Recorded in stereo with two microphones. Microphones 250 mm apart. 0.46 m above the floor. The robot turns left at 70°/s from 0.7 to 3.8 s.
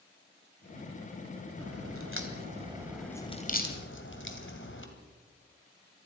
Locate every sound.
1.6 s a crack: 65° right (ahead or behind), 2.5 m; by 4.9 s 50° left (ahead or behind), 2.5 m